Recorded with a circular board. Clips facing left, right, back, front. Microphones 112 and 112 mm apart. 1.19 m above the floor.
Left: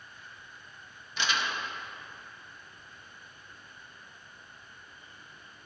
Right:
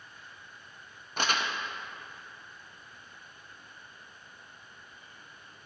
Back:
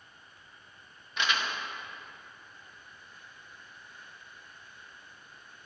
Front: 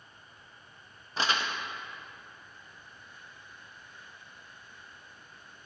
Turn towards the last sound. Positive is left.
turn(degrees=-55)